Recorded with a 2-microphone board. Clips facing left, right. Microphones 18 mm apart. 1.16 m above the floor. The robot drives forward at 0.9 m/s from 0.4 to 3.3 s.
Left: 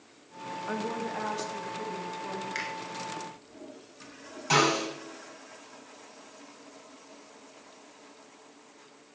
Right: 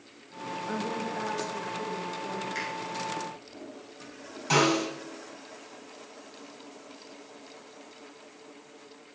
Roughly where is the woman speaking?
Left.